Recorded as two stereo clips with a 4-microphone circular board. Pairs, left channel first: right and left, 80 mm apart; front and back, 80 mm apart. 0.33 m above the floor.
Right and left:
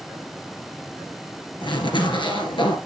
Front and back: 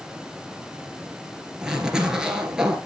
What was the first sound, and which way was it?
A zipper, 100° right.